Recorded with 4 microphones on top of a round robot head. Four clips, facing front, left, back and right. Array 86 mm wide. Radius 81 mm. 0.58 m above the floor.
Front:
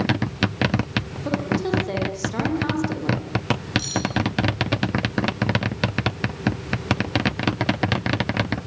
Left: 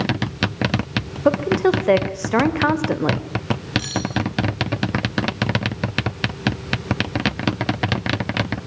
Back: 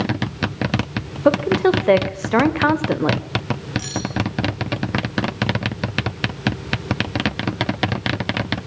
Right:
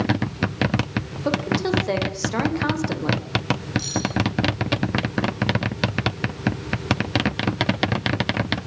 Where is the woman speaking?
150° left, 3 m.